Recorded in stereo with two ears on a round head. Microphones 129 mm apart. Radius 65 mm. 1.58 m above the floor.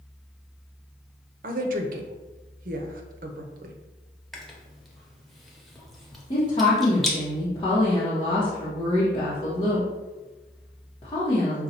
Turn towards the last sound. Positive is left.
turn(degrees=30)  # may be behind; listen again after turning